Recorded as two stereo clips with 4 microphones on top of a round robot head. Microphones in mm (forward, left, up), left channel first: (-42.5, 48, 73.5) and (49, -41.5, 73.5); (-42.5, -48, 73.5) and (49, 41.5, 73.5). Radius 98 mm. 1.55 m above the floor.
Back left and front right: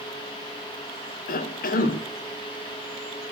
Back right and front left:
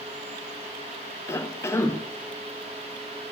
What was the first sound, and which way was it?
A cough, 155° left.